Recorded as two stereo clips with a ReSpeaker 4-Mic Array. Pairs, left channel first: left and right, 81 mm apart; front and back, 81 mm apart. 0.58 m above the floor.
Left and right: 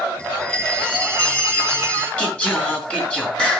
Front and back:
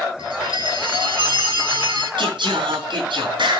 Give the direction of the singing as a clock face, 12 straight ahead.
6 o'clock.